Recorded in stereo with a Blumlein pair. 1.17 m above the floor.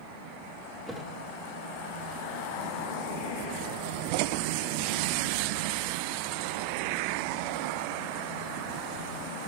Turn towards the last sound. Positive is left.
turn(degrees=-10)